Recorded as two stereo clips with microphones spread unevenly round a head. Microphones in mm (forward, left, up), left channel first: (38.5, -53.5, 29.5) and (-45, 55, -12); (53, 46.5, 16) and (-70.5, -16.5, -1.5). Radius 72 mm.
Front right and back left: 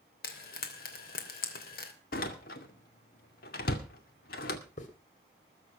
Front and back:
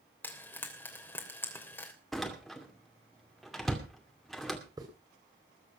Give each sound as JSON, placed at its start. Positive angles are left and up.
{"t": 0.2, "sound": "frying", "azimuth_deg": -50, "distance_m": 3.0}
{"t": 2.1, "sound": "a door slam", "azimuth_deg": -60, "distance_m": 2.5}
{"t": 4.8, "sound": "a hiss", "azimuth_deg": -85, "distance_m": 3.5}